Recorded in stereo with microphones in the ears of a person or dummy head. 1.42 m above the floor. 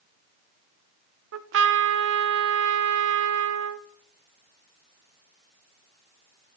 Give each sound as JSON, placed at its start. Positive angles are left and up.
{"t": 1.3, "sound": "a trumpet", "side_deg": -65, "distance_m": 0.7}